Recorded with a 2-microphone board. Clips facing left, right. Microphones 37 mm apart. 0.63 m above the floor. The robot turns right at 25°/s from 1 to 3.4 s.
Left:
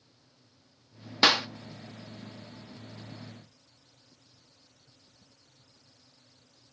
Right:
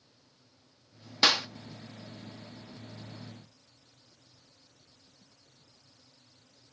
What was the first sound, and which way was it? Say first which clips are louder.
A clap: left 3 dB; 15° left (ahead or behind).